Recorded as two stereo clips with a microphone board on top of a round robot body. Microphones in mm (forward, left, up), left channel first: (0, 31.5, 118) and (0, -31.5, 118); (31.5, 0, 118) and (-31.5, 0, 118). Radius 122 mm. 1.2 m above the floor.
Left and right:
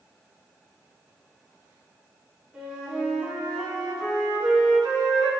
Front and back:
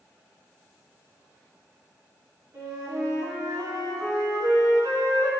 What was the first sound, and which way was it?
A flute, 165° right.